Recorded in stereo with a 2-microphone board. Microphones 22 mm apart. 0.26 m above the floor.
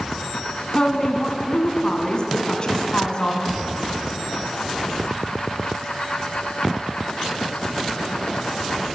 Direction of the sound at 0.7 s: 35° left (ahead or behind).